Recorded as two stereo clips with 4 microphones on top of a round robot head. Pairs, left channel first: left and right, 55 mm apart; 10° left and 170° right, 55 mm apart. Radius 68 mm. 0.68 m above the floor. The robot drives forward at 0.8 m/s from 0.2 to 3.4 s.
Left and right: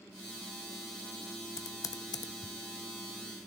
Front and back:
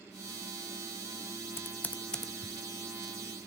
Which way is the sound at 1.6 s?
55° left.